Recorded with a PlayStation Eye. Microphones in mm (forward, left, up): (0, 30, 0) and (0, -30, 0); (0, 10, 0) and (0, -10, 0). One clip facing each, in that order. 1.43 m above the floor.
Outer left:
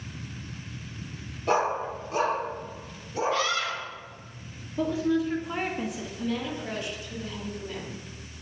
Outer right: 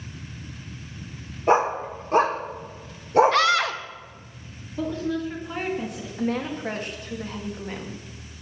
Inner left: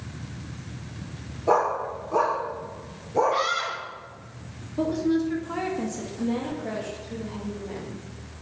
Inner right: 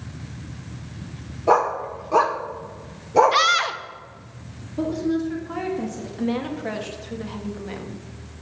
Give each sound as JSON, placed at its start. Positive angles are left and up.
{"t": 1.5, "sound": "a dog barking", "side_deg": -25, "distance_m": 1.8}
{"t": 3.3, "sound": "a scream", "side_deg": -65, "distance_m": 1.3}
{"t": 4.8, "sound": "a woman speaking", "side_deg": 5, "distance_m": 2.0}
{"t": 6.2, "sound": "a woman speaking", "side_deg": -45, "distance_m": 2.5}